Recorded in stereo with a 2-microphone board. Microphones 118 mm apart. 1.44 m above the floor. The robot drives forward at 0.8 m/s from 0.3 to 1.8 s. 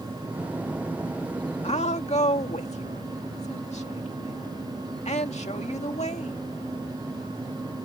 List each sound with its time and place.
1.6 s a woman speaking: 70° left (ahead or behind); by 6.4 s 75° left (ahead or behind)